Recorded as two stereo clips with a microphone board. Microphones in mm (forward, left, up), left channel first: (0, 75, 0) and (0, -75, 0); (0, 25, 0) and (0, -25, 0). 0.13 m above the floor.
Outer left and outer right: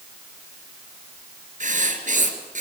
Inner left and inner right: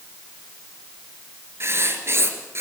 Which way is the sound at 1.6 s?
55° right (ahead or behind).